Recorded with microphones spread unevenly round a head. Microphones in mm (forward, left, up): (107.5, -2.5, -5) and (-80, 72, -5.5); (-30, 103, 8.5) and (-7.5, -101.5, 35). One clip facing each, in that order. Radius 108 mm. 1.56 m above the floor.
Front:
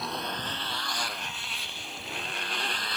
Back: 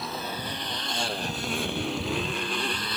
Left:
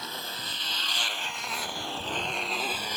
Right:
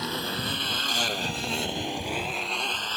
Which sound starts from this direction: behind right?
A motorcycle, at 0.0 s.